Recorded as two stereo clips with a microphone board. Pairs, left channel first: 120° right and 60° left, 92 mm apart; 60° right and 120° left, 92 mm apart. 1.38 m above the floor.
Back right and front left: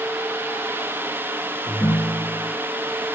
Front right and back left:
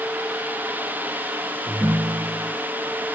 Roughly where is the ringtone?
Behind.